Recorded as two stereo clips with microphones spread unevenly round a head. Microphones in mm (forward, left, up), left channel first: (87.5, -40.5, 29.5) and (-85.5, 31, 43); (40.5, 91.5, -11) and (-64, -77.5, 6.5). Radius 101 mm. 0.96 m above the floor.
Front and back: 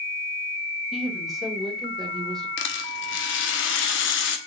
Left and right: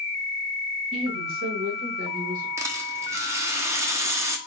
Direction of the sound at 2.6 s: 50° right.